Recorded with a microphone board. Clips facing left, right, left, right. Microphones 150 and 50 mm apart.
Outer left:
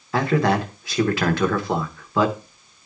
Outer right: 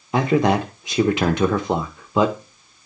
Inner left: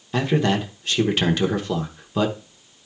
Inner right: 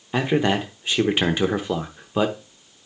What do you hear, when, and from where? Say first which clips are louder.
0.1 s a man speaking: outer right 2 dB, even; 20° right (ahead or behind), 0.7 m